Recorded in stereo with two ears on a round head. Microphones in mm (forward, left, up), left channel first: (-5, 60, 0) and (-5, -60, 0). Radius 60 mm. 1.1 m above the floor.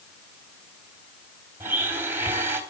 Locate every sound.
1.6 s a blender: 20° right (ahead or behind), 3 m